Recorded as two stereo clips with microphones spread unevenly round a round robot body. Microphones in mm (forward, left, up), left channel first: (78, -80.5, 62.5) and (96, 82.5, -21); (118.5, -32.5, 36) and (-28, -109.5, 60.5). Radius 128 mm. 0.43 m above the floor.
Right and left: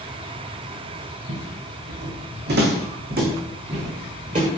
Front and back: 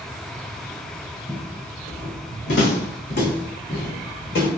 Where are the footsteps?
95° left, 1.0 m; by 4.5 s 35° left, 2 m.